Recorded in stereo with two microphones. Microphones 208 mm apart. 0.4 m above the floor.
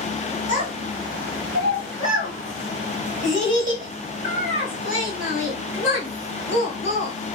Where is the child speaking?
60° right (ahead or behind), 1.8 m.